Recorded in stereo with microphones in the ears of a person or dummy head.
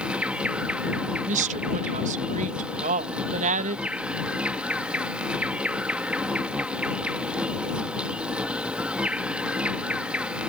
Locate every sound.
0.0 s an insect: centre (ahead or behind)
1.3 s a woman speaking: 45° right (ahead or behind)